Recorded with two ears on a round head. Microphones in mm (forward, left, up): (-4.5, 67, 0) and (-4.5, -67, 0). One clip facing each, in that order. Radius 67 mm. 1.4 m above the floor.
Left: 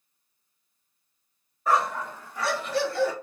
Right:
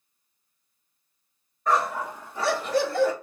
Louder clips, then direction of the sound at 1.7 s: Even; 5° left (ahead or behind).